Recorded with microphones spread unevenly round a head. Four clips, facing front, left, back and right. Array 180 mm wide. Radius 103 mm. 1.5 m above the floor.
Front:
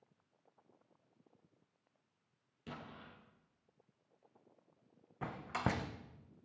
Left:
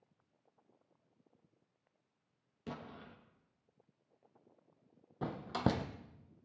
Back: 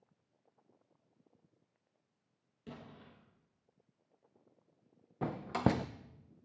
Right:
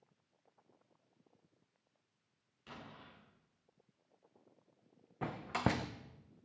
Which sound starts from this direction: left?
An explosion, at 2.7 s.